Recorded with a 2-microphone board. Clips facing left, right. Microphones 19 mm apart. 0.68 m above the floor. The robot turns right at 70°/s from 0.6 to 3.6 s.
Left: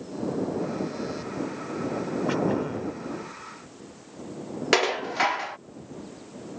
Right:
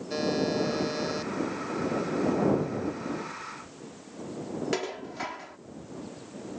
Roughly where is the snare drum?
I don't hear a snare drum.